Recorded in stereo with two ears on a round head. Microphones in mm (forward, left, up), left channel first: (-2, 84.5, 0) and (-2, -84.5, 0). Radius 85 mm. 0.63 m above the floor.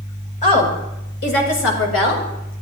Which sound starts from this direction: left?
A woman speaking, at 0.4 s.